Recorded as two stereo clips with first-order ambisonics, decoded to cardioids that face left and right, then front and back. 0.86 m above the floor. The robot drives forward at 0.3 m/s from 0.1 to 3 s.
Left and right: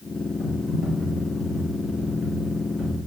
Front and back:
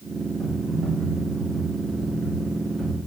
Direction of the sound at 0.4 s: 125° left.